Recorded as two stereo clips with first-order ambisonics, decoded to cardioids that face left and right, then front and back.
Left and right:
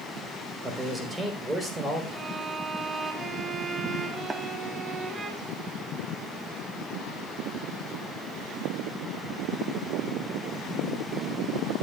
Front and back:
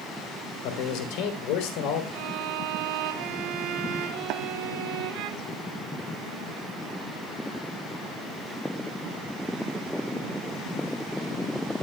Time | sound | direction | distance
0.6 | a man speaking | 15° right | 3.5 m
2.1 | a violin | 160° right | 3.5 m
4.3 | tapping | 160° right | 1.4 m